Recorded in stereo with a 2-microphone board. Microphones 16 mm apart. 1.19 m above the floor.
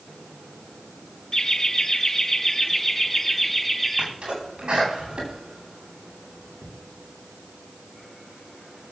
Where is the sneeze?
85° right, 10 m.